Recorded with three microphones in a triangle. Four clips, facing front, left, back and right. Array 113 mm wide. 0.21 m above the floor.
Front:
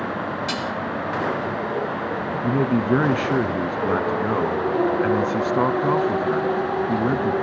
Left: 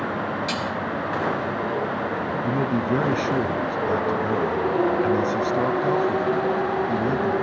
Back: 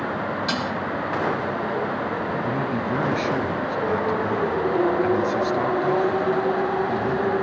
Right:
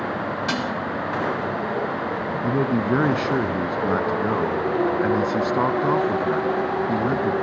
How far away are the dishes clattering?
About 1.3 m.